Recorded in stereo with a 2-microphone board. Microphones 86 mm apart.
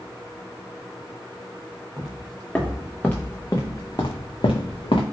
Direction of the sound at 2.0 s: Centre (ahead or behind).